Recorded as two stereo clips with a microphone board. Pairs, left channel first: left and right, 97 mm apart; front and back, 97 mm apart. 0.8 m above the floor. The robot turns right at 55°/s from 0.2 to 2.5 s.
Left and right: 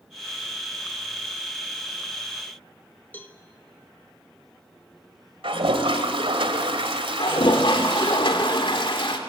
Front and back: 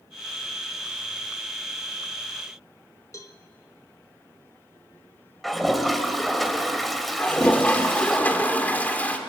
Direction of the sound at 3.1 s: 30° left.